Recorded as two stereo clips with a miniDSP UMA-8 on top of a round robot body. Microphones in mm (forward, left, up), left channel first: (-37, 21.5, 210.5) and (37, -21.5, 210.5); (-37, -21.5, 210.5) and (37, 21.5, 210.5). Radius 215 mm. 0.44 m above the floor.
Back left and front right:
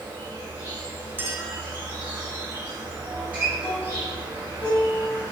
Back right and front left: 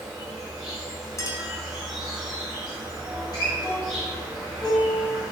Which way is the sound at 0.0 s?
60° right.